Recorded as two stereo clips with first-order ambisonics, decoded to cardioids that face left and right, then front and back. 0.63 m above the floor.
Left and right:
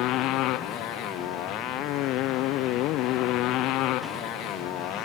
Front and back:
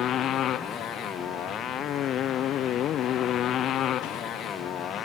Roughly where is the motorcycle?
Ahead left.